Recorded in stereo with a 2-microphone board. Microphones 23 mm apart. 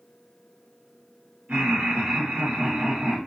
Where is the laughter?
65° right (ahead or behind), 1.2 m.